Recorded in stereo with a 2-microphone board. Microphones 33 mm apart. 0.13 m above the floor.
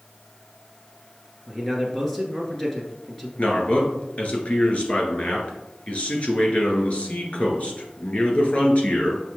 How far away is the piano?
No piano in this recording.